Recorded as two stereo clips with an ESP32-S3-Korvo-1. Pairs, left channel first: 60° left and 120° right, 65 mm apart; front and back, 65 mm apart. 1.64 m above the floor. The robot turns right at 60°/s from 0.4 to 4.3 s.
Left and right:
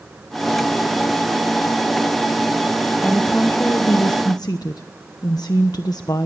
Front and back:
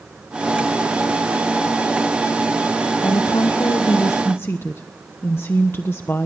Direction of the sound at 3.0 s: 25° right.